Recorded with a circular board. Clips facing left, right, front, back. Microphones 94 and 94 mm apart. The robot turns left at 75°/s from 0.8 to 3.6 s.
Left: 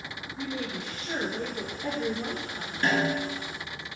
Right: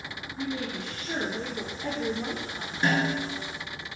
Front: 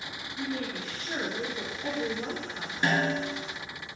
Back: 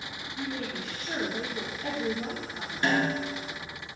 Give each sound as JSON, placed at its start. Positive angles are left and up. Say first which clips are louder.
{"t": 0.4, "sound": "a woman speaking", "louder": "right 2 dB, front 1 dB", "azimuth_deg": 130, "distance_m": 1.3}
{"t": 2.8, "sound": "a snare drum", "louder": "even, even", "azimuth_deg": -35, "distance_m": 1.1}